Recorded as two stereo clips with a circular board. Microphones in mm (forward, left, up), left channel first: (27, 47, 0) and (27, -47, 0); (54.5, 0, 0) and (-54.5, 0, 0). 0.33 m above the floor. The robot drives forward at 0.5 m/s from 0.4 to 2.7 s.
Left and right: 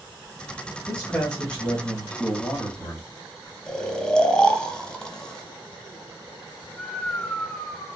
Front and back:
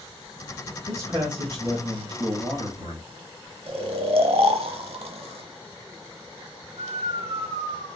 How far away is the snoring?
About 0.7 m.